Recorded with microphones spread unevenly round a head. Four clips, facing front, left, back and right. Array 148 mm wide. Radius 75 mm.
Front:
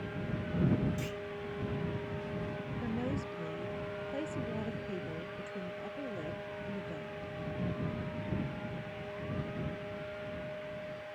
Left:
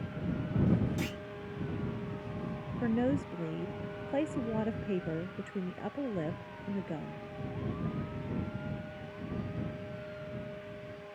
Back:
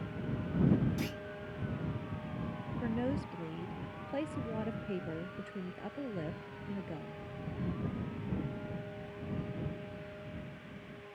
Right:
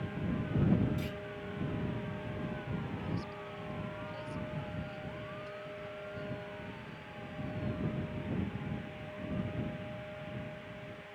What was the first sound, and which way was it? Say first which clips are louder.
A clunk: left 3 dB, even; 115° left.